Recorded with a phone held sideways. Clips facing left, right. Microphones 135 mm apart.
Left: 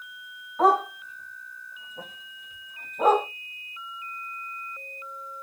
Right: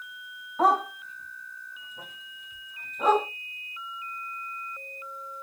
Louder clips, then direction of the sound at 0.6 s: Left 2 dB; centre (ahead or behind).